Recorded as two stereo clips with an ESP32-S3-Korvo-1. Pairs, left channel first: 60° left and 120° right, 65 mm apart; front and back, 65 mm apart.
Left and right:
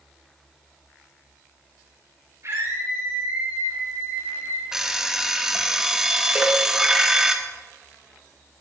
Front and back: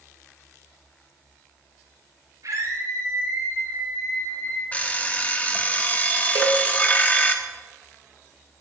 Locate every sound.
2.4 s a scream: 160° right, 5.5 m; by 4.6 s 170° right, 5.5 m
4.7 s an alarm clock: 45° right, 1.1 m
6.3 s a cowbell: 175° left, 1.7 m